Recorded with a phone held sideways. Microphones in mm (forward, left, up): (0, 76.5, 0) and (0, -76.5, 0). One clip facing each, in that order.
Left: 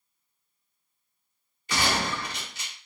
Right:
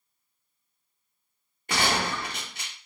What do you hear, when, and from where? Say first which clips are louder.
1.7 s a gunshot: right 1 dB; 55° right (ahead or behind), 1.6 m